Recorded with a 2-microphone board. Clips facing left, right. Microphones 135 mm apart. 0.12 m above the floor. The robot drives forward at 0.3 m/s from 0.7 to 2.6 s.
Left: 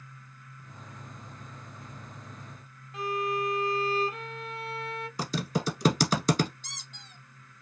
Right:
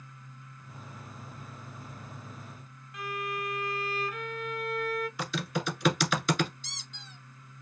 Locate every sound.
2.9 s a violin: 30° left (ahead or behind), 0.5 m
5.2 s typing on a keyboard: 40° left (ahead or behind), 1.2 m
6.6 s a squeak: 50° left (ahead or behind), 1.7 m